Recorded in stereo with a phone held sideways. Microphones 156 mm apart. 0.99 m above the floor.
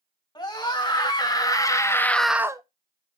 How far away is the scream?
About 3 m.